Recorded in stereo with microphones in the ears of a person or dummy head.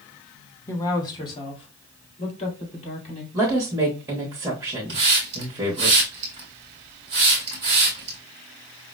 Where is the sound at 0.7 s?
10° left (ahead or behind), 0.9 m; by 3.2 s 40° left (ahead or behind), 3 m.